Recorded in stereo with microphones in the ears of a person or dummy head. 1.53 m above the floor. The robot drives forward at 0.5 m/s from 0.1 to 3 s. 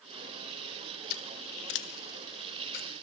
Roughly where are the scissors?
Left.